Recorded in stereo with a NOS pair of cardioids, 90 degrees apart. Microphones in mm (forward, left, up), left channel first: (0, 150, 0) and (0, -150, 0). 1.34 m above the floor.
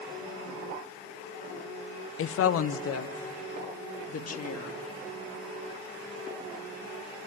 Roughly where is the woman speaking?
Ahead left.